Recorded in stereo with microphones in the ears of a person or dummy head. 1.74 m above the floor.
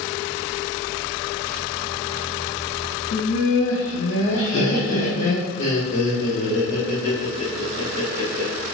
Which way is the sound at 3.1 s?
70° left (ahead or behind).